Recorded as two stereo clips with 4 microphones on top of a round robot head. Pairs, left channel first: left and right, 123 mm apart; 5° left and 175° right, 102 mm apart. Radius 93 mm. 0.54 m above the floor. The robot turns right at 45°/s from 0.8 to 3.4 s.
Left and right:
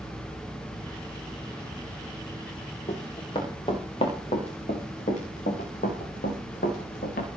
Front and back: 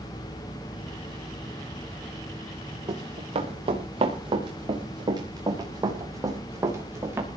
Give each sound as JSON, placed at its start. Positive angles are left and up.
{"t": 2.9, "sound": "running footsteps", "azimuth_deg": 135, "distance_m": 5.5}